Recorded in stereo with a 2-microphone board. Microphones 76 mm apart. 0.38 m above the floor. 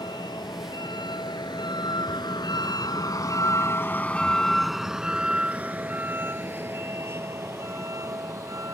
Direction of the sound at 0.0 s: 75° left (ahead or behind).